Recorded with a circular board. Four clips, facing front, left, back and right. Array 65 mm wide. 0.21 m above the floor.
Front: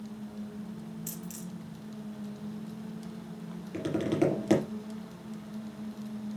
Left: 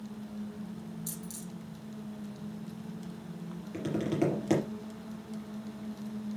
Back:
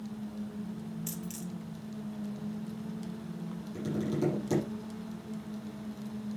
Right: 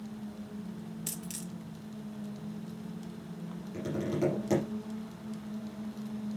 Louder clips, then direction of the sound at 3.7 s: Left 2 dB, front 4 dB; 20° left.